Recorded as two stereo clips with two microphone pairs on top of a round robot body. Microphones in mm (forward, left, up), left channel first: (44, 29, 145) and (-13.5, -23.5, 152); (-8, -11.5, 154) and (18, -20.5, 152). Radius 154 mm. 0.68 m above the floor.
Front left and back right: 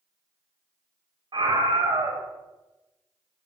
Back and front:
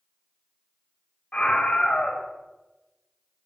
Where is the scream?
150° right, 3 m.